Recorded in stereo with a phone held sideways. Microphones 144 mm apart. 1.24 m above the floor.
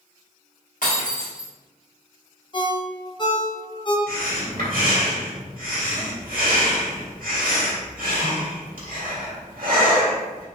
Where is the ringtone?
30° left (ahead or behind), 0.7 m.